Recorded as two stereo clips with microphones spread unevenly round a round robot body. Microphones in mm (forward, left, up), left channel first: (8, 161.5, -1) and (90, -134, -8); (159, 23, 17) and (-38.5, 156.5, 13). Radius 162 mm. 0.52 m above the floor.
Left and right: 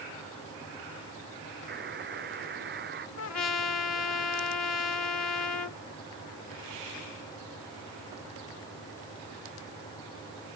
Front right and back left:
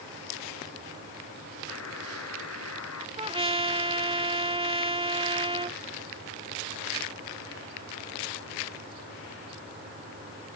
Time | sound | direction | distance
1.7 | a buzzer | 20° right | ?
3.2 | a trumpet | 85° left | ?